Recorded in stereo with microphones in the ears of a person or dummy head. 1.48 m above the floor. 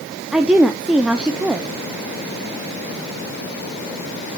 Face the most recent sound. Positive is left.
turn(degrees=-5)  # may be behind; listen again after turning